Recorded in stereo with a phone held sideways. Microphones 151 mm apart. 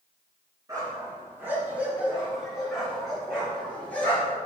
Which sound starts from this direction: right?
A dog barking, at 0.7 s.